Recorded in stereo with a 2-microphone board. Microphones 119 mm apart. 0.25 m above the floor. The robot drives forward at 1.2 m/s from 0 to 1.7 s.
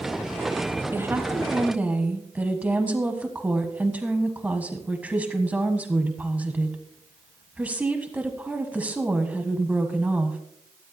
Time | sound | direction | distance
0.9 | a woman speaking | 20° right (ahead or behind) | 1.0 m